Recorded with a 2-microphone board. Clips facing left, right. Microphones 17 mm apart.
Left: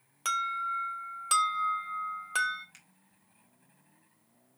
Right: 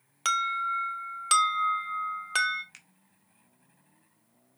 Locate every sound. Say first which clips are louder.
0.2 s an alarm: right 3 dB; 30° right (ahead or behind), 1.7 m
2.7 s a finger snap: right 5 dB; 30° right (ahead or behind), 1.5 m